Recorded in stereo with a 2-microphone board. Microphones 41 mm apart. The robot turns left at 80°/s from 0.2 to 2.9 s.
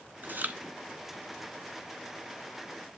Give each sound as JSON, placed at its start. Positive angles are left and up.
{"t": 0.2, "sound": "chewing", "side_deg": -45, "distance_m": 0.7}